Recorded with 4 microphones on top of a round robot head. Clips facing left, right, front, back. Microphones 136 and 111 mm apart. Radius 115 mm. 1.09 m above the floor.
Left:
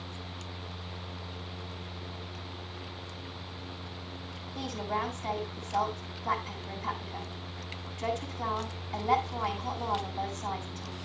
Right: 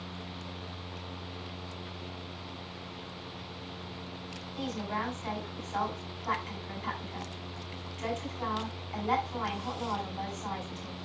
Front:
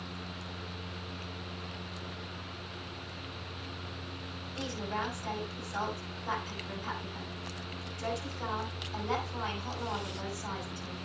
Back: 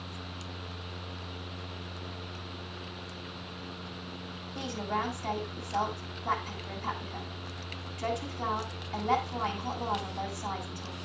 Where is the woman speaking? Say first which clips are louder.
Left 1 dB, back 3 dB; 150° left, 8 m.